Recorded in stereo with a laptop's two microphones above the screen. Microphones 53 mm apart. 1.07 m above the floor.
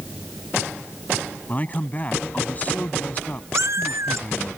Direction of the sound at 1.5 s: 30° left (ahead or behind).